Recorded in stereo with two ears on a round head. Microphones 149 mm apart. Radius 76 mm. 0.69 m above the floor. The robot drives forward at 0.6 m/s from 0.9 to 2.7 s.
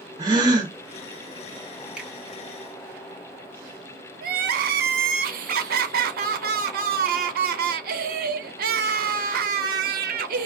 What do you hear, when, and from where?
0.2 s a gasp: 25° right (ahead or behind), 0.9 m
2.0 s a finger snap: 5° right (ahead or behind), 1.0 m
4.2 s crying: 60° right (ahead or behind), 0.5 m